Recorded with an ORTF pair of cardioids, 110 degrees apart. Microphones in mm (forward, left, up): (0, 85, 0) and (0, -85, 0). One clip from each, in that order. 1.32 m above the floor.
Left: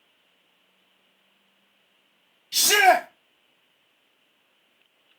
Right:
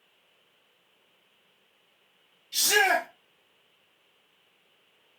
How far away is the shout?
About 0.6 m.